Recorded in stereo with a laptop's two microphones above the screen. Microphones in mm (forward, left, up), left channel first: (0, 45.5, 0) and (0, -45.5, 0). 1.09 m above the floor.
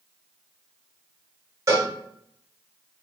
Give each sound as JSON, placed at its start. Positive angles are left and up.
{"t": 1.7, "sound": "a cowbell", "side_deg": -35, "distance_m": 1.2}